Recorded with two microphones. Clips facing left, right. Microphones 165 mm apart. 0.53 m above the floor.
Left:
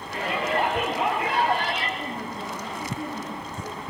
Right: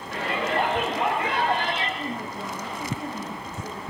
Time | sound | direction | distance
0.1 | a shout | 75° right (ahead or behind) | 9 m
2.0 | a woman speaking | 75° right (ahead or behind) | 9 m